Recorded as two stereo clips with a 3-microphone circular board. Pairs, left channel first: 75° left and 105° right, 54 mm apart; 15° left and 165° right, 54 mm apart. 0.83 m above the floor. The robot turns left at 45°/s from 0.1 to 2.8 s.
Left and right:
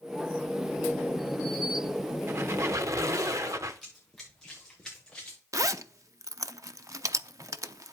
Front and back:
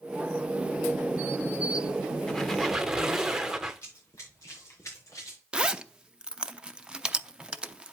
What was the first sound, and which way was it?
A squeak, 65° right.